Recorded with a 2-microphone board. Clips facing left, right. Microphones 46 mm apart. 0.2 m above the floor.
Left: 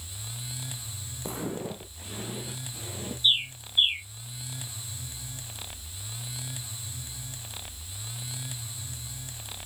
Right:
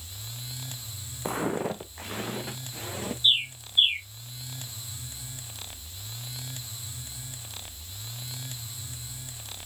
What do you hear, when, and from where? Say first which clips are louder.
1.2 s footsteps: right 6 dB; 40° right (ahead or behind), 1.0 m; by 3.1 s 70° right (ahead or behind), 3 m
3.2 s a bird: right 1 dB; 10° right (ahead or behind), 3.5 m